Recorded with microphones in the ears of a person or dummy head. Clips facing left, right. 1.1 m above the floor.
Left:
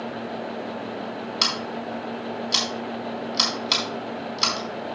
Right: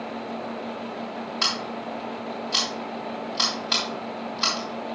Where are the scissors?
40° left (ahead or behind), 4.5 m.